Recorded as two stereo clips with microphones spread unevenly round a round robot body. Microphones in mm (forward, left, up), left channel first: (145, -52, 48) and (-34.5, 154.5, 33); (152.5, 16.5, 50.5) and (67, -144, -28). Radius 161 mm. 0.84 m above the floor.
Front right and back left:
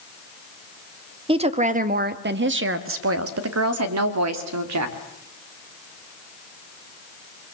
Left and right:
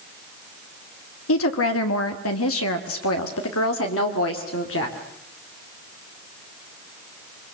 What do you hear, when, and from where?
1.3 s a woman speaking: 65° left, 1.5 m; by 5.0 s 120° left, 2.5 m